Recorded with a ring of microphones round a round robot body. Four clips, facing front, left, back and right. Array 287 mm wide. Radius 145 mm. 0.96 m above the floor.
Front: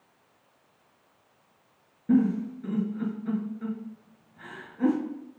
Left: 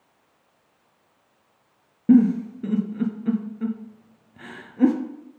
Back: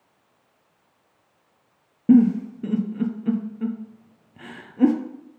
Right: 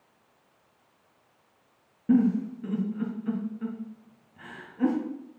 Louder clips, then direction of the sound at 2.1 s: Left 6 dB, back 8 dB; 140° left.